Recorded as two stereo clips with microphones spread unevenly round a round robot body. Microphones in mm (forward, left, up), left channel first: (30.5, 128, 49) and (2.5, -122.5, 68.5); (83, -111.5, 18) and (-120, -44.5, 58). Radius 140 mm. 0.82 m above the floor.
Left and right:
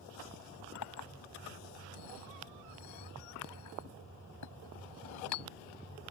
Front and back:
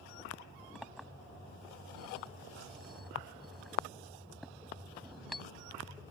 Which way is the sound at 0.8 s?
75° left.